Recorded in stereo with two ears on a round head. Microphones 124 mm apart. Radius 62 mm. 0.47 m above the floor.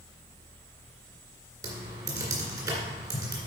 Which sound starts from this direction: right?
Typing on a keyboard, at 1.6 s.